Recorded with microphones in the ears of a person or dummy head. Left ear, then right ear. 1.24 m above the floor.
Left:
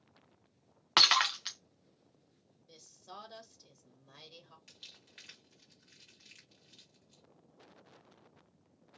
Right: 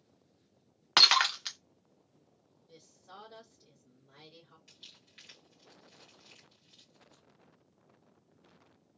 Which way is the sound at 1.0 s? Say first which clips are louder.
Right 2 dB; 5° right (ahead or behind).